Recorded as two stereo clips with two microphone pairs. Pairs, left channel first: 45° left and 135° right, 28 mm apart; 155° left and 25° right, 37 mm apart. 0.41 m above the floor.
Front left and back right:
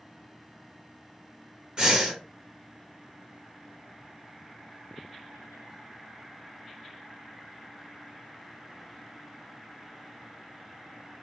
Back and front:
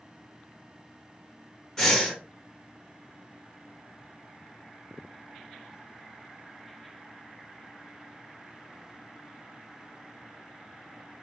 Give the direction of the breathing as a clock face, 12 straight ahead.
5 o'clock.